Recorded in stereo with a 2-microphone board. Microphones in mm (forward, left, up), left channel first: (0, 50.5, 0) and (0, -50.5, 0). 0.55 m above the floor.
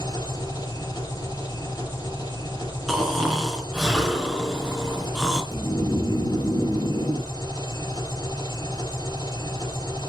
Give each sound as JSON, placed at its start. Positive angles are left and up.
{"t": 0.0, "sound": "an engine running", "side_deg": 40, "distance_m": 4.5}
{"t": 2.9, "sound": "snoring", "side_deg": -5, "distance_m": 3.5}
{"t": 5.5, "sound": "snoring", "side_deg": 65, "distance_m": 3.0}